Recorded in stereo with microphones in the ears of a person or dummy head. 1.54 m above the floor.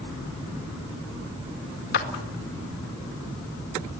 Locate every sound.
1.9 s a clap: 60° left (ahead or behind), 1.9 m